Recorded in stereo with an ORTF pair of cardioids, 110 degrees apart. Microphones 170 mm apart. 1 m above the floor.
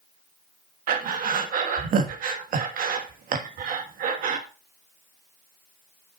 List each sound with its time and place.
0.9 s breathing: 55° right, 1.4 m